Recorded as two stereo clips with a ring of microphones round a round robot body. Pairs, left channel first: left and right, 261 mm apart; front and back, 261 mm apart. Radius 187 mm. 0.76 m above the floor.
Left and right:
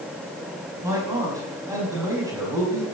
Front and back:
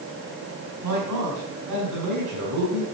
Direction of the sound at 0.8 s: 170° right.